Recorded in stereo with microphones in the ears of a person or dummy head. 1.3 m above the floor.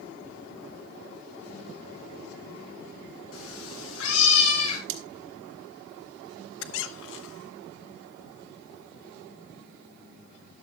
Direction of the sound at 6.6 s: 70° left (ahead or behind).